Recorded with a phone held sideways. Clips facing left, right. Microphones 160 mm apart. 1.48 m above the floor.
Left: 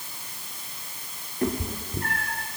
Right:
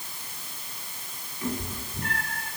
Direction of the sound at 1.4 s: 60° left (ahead or behind).